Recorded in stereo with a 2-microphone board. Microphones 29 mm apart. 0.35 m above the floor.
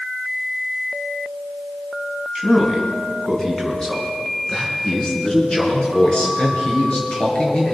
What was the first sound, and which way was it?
A man speaking, centre (ahead or behind).